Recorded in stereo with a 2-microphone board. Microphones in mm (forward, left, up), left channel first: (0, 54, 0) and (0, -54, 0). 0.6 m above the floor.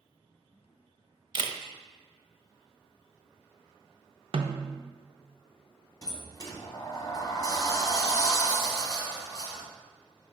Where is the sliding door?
35° left (ahead or behind), 1.1 m.